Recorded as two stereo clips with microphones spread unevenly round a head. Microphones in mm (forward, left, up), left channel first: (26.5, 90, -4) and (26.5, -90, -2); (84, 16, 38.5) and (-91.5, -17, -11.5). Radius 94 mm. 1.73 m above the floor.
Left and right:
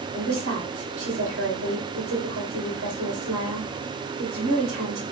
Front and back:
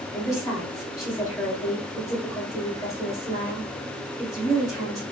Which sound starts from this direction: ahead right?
A woman speaking, at 0.1 s.